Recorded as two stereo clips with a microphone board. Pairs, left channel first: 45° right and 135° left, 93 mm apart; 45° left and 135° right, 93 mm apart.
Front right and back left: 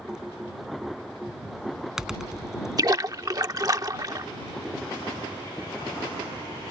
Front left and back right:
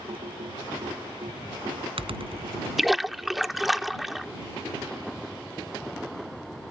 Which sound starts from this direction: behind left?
A splash, at 2.8 s.